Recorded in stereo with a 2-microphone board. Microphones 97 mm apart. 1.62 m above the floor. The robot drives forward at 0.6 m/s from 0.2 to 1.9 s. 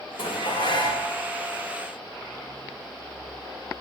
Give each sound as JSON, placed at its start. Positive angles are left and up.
{"t": 0.2, "sound": "dishes clattering", "side_deg": 75, "distance_m": 4.0}